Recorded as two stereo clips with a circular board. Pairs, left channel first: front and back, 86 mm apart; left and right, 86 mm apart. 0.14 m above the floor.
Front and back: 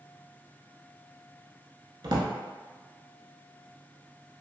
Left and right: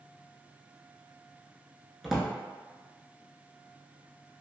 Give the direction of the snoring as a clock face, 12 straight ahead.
I don't hear snoring.